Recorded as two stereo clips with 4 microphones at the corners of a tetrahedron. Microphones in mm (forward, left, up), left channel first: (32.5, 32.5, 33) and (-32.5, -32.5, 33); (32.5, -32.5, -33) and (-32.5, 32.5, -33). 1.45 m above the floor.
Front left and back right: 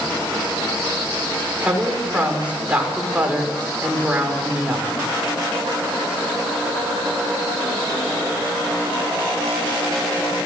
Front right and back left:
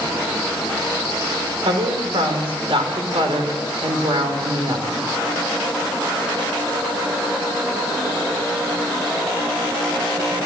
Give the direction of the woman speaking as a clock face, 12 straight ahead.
7 o'clock.